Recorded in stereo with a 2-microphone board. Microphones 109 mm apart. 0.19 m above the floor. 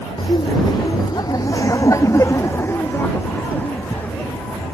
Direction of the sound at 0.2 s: 40° left (ahead or behind).